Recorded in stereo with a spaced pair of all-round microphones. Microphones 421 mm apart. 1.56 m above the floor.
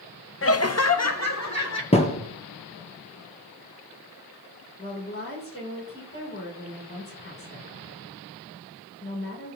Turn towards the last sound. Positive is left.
turn(degrees=30)  # may be behind; listen again after turning